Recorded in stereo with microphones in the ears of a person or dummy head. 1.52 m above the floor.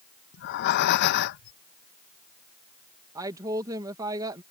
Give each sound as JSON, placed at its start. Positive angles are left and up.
{"t": 0.3, "sound": "breathing", "side_deg": 55}
{"t": 3.1, "sound": "a woman speaking", "side_deg": -25}